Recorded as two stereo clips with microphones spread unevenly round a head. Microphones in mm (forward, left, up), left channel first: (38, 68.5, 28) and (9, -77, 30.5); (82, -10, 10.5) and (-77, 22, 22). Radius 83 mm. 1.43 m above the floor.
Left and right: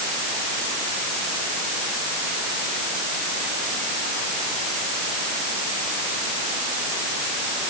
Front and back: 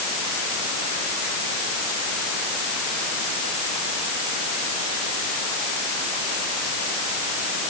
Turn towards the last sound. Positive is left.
No sound to turn to.